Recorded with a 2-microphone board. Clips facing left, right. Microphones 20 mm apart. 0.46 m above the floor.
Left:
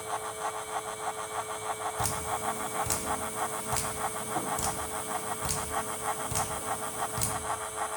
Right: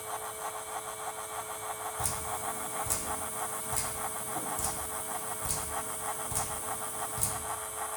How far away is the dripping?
About 0.6 m.